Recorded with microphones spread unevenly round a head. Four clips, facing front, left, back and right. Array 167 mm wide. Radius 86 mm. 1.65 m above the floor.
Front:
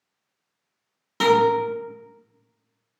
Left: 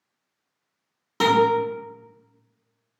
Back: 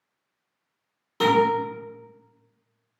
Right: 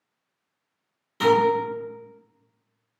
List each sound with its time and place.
1.2 s a guitar: 50° left, 1.5 m